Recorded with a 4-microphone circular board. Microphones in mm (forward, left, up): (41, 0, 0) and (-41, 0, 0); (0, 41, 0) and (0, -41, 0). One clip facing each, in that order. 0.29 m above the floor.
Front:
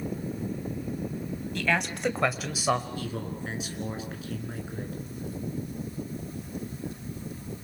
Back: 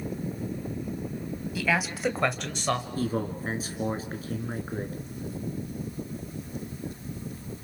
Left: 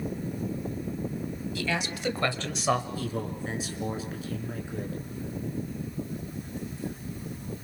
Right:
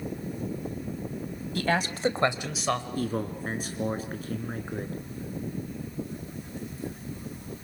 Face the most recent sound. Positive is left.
turn(degrees=-130)